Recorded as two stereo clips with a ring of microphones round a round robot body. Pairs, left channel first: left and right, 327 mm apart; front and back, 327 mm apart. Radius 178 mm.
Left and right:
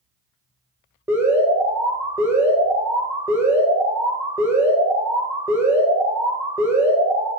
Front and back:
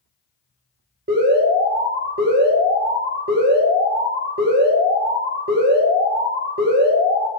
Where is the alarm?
165° right, 1.8 m.